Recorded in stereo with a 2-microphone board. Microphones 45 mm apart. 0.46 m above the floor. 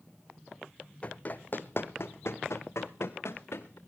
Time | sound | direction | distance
1.0 | running footsteps | 30° left (ahead or behind) | 1.4 m